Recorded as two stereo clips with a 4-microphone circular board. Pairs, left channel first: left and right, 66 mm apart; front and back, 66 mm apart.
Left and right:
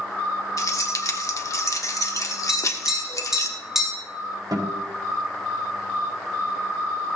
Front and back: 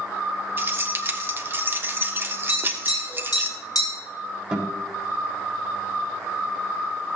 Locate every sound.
0.6 s keys jangling: 125° left, 1.3 m
2.5 s tapping: 5° right, 6.5 m
4.5 s a guitar: 100° right, 4.5 m